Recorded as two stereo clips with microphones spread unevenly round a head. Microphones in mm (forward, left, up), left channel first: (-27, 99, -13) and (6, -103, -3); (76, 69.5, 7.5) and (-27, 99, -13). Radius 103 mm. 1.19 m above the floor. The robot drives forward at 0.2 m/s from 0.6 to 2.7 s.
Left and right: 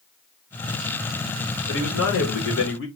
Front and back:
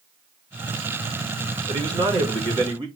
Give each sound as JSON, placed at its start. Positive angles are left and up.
{"t": 1.7, "sound": "a man speaking", "azimuth_deg": 125, "distance_m": 1.5}